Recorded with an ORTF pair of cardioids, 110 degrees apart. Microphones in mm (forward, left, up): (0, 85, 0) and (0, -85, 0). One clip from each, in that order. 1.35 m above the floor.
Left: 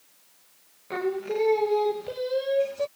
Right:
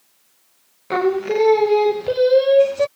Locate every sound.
0.9 s singing: 55° right